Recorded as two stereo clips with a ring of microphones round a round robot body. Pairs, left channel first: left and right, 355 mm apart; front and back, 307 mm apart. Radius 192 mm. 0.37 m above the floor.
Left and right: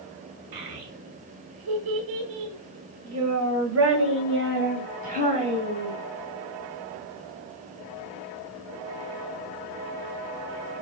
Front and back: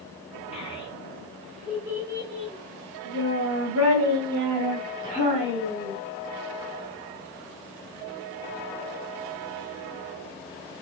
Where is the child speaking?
70° right, 2.5 m; by 6.0 s 165° right, 3 m.